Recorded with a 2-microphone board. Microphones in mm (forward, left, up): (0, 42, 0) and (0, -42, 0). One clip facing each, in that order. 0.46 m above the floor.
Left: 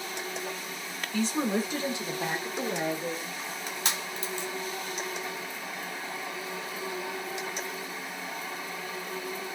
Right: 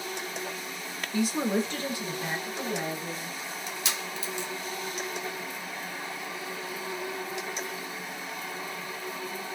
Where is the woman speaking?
10° right (ahead or behind), 1.2 m; by 3.3 s 55° left (ahead or behind), 1.7 m.